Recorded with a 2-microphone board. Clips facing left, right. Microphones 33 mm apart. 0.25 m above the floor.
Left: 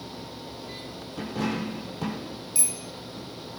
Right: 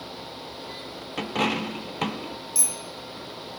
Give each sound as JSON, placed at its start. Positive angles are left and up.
{"t": 1.2, "sound": "a dropped coin", "side_deg": -70, "distance_m": 1.0}
{"t": 2.5, "sound": "a bicycle bell", "side_deg": 30, "distance_m": 4.5}